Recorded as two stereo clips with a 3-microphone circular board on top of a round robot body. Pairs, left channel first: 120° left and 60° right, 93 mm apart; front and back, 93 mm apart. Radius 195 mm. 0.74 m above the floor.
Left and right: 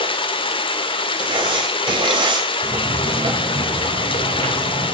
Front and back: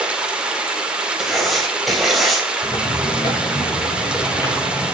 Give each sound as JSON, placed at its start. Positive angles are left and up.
{"t": 0.0, "sound": "running water", "azimuth_deg": 100, "distance_m": 2.5}
{"t": 1.2, "sound": "writing", "azimuth_deg": -90, "distance_m": 3.5}
{"t": 2.6, "sound": "footsteps", "azimuth_deg": -35, "distance_m": 3.0}